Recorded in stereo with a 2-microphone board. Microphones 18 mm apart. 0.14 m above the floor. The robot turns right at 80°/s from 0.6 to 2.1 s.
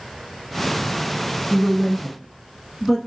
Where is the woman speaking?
25° left (ahead or behind), 1.3 m; by 3.0 s 5° left (ahead or behind), 1.3 m.